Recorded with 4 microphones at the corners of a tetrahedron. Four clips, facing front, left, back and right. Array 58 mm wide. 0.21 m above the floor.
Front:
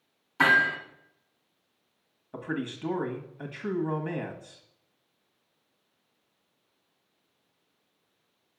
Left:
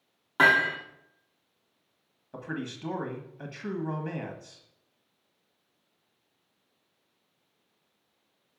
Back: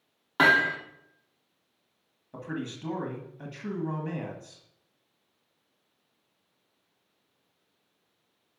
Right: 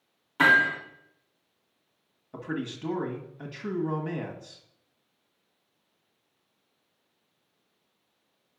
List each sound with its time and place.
0.4 s hammering: 155° left, 3.5 m
2.3 s a man speaking: 15° left, 1.3 m